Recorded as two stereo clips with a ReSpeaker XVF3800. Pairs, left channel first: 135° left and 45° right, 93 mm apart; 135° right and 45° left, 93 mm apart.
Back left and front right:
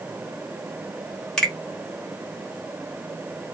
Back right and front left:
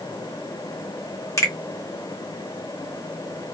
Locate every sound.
1.4 s a finger snap: 150° right, 1.1 m